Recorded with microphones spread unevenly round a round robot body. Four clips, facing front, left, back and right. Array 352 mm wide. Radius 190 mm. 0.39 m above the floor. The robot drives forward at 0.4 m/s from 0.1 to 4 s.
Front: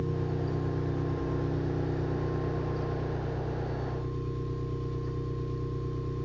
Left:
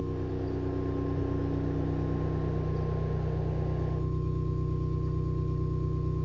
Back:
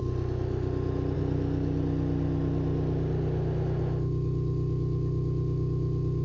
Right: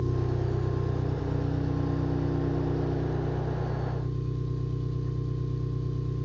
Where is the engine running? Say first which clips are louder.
Right 2 dB, even; 155° right, 1.0 m; by 6.2 s 170° right, 2.5 m.